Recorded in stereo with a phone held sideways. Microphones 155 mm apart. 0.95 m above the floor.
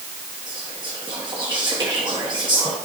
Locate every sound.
0.5 s whispering: 30° right (ahead or behind), 1.1 m